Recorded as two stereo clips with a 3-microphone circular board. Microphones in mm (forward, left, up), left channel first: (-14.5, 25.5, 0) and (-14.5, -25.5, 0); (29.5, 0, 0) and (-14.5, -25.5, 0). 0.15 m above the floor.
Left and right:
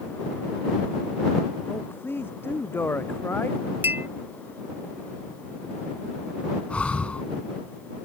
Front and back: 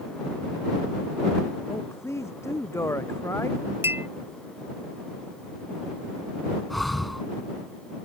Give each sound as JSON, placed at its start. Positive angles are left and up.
{"t": 1.7, "sound": "a man speaking", "azimuth_deg": 50}
{"t": 3.8, "sound": "a clink", "azimuth_deg": -125}
{"t": 6.7, "sound": "breathing", "azimuth_deg": 115}